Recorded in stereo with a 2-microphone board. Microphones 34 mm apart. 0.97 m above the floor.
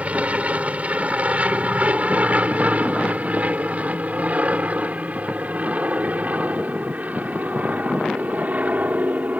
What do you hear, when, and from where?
0.0 s an aircraft: 40° right (ahead or behind); by 9.4 s 50° right (ahead or behind)